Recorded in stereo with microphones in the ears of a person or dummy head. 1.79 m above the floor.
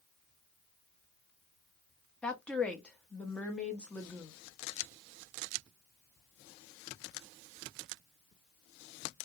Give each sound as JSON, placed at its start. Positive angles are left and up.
{"t": 2.2, "sound": "a woman speaking", "side_deg": 5, "distance_m": 0.5}